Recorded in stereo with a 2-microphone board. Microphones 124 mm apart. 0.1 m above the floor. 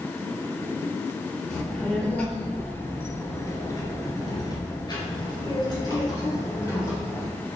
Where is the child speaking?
5° left (ahead or behind), 1.6 m; by 7.3 s 30° left (ahead or behind), 2 m.